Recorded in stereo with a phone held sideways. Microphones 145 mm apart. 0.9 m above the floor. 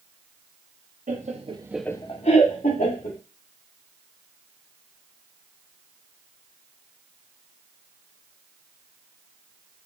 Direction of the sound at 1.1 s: 60° right (ahead or behind).